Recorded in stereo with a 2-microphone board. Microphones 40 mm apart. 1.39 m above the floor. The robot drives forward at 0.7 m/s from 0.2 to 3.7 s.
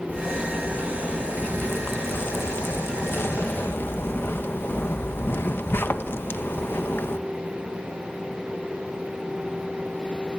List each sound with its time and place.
0.1 s a zipper: 45° left (ahead or behind), 2.5 m; by 7.2 s 70° left (ahead or behind), 1.8 m